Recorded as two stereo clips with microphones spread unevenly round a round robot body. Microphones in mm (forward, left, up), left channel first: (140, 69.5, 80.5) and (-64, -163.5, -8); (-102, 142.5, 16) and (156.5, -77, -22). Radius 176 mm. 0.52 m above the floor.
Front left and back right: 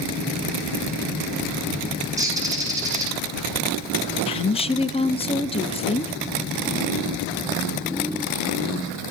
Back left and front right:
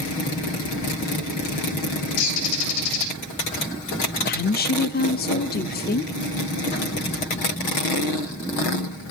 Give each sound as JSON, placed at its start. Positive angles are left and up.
{"t": 2.2, "sound": "a bird", "azimuth_deg": 145, "distance_m": 4.5}
{"t": 4.3, "sound": "a woman speaking", "azimuth_deg": 135, "distance_m": 0.7}